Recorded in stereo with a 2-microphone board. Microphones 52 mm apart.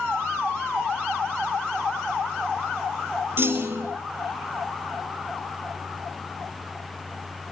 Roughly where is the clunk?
Right.